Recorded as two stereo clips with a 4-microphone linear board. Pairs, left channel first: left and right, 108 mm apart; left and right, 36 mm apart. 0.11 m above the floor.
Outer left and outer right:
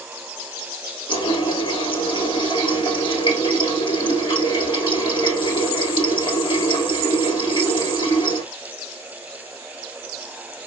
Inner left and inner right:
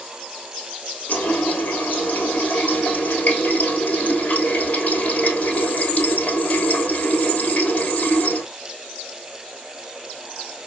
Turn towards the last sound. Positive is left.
turn(degrees=50)  # may be behind; listen again after turning